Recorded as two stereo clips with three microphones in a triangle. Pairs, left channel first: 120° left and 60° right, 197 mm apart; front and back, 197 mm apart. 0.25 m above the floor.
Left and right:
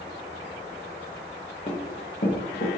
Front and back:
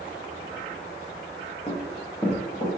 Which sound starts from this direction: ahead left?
Running footsteps, at 1.7 s.